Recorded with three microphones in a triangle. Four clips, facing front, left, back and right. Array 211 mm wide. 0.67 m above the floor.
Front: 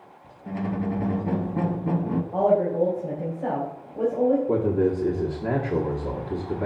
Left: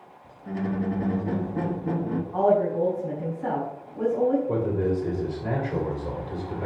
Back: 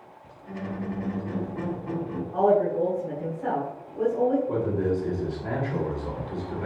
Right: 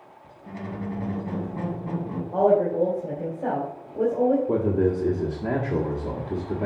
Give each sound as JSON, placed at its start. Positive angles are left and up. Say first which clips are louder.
{"t": 0.5, "sound": "a squeak", "louder": "left 5 dB, front 5 dB", "azimuth_deg": 15, "distance_m": 0.9}
{"t": 2.3, "sound": "a woman speaking", "louder": "right 2 dB, even", "azimuth_deg": -60, "distance_m": 2.5}
{"t": 4.5, "sound": "a man speaking", "louder": "right 3 dB, front 4 dB", "azimuth_deg": -45, "distance_m": 1.5}